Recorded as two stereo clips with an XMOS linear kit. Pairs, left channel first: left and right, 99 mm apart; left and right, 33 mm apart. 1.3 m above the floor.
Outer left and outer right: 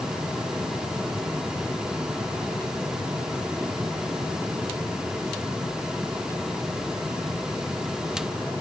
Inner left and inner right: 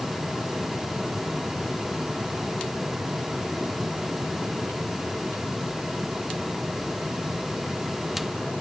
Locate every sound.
Only background noise.